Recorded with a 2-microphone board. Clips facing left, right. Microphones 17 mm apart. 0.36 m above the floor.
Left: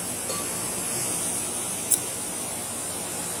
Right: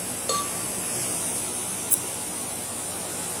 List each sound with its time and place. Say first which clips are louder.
0.3 s a cowbell: right 7 dB; 50° right (ahead or behind), 0.8 m
1.9 s scissors: left 3 dB; 25° left (ahead or behind), 0.6 m